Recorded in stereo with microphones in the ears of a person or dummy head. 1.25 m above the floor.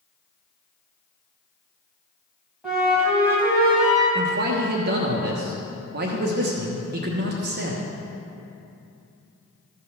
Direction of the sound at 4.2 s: 45° right (ahead or behind).